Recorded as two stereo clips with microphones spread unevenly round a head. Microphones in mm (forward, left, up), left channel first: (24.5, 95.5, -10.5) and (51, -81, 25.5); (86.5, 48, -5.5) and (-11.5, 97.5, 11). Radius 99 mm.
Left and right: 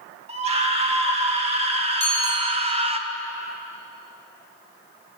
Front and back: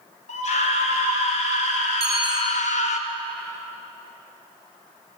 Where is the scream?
25° right, 4 m.